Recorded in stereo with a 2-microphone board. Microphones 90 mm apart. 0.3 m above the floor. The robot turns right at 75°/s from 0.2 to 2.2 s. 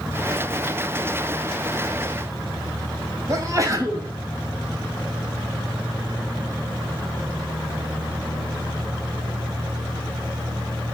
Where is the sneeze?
35° right (ahead or behind), 2.5 m.